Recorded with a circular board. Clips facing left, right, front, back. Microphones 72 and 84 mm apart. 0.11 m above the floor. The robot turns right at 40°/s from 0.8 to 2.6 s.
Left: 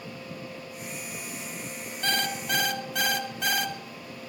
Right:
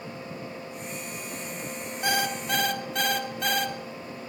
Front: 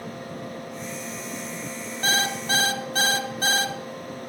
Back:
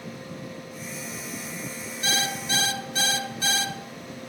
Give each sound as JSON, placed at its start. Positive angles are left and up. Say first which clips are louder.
{"t": 2.0, "sound": "an alarm clock", "louder": "right 2 dB, front 4 dB", "azimuth_deg": -20, "distance_m": 0.8}